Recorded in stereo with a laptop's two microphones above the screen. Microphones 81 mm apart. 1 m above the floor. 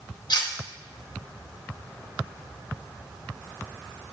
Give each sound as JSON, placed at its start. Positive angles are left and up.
{"t": 0.3, "sound": "cutlery clinking", "side_deg": 60, "distance_m": 0.8}